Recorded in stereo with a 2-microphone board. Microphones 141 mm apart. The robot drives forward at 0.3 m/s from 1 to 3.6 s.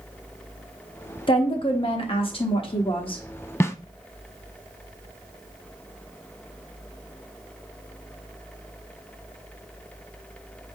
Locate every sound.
1.3 s a woman speaking: 35° left (ahead or behind), 1.0 m; by 3.2 s 40° left (ahead or behind), 1.0 m
3.6 s a snare drum: 20° left (ahead or behind), 0.6 m